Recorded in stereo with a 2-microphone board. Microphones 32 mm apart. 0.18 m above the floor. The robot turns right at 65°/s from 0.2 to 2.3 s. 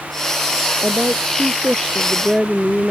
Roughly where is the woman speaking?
Right.